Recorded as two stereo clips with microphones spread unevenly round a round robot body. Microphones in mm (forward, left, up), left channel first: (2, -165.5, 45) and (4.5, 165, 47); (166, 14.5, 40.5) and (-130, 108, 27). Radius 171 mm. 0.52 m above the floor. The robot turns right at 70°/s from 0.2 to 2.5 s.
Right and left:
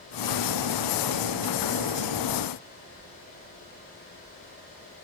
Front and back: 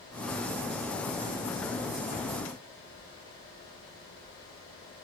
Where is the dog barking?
I don't hear a dog barking.